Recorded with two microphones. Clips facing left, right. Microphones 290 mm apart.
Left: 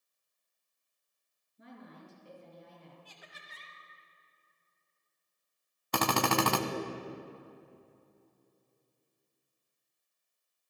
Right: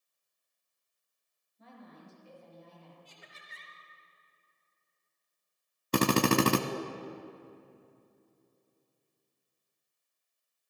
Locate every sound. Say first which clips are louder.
1.6 s a woman speaking: left 2 dB; 70° left (ahead or behind), 4 m
3.0 s laughter: left 1 dB; 25° right (ahead or behind), 1.3 m
5.9 s a drill: right 5 dB; 35° right (ahead or behind), 0.6 m